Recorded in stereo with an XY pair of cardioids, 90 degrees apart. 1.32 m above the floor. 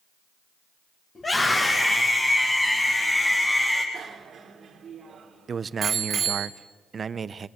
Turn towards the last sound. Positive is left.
turn(degrees=-45)